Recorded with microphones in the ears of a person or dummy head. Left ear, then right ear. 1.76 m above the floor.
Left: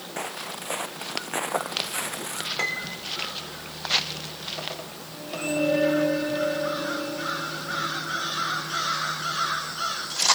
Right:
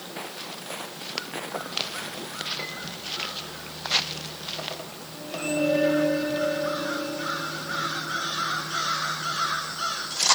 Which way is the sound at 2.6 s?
45° left (ahead or behind).